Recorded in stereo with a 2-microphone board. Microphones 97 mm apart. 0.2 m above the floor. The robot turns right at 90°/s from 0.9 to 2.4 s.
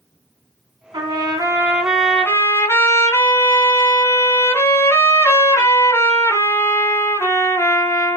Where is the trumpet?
90° right, 1.5 m; by 8.2 s 40° left, 1.5 m.